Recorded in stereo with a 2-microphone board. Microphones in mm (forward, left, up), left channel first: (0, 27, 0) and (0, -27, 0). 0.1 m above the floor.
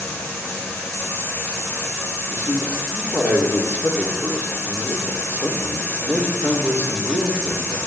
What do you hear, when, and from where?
2.3 s a man speaking: 30° right (ahead or behind), 3.5 m